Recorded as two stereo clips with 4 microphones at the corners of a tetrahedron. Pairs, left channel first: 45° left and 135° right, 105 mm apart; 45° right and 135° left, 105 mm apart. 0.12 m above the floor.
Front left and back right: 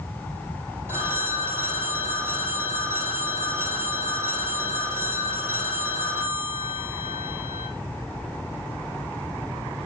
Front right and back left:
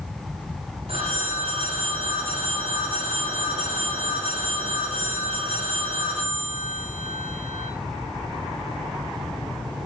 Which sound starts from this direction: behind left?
A phone ringing, at 0.9 s.